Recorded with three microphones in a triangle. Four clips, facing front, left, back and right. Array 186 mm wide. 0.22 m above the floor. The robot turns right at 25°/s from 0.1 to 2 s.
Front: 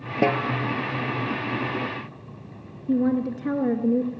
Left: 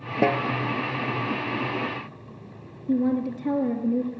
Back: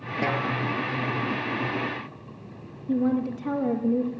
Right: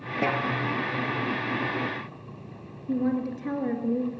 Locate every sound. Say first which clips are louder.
0.2 s a snare drum: left 4 dB, front 5 dB; 45° left, 2.5 m; by 0.5 s 50° left, 2.5 m
2.9 s a woman speaking: left 3 dB, front 2 dB; 20° left, 3 m